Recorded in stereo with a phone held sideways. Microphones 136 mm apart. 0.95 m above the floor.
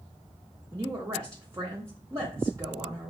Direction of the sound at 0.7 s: 25° right (ahead or behind).